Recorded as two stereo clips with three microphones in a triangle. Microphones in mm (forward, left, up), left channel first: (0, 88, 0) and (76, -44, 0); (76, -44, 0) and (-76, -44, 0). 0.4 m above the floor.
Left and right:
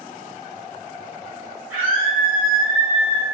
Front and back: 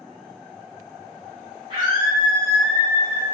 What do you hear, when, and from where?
1.7 s a scream: 135° right, 1.4 m; by 3.2 s 45° left, 1.1 m